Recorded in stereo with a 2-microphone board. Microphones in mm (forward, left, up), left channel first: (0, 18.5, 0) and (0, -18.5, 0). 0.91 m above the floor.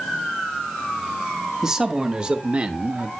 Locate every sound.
1.6 s a man speaking: 20° right (ahead or behind), 1.3 m; by 3.1 s 45° right (ahead or behind), 0.8 m